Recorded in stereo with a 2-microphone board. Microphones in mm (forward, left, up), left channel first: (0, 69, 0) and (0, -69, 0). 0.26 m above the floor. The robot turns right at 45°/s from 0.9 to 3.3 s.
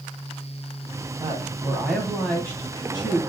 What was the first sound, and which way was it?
A woman speaking, 40° right.